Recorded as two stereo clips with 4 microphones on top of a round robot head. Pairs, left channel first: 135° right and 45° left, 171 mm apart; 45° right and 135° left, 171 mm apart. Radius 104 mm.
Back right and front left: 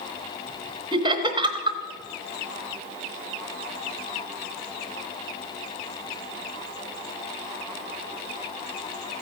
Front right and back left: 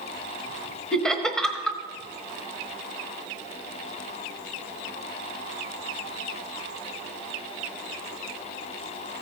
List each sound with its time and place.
0.9 s laughter: 35° left, 1.2 m